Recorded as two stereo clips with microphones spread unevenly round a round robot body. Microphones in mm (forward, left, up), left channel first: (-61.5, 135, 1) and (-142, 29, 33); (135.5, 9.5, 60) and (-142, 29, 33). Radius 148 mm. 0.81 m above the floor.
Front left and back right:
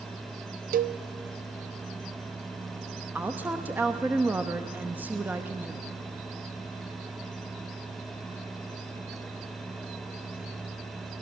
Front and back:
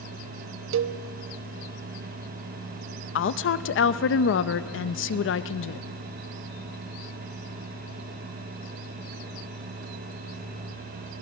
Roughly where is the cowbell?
Behind right.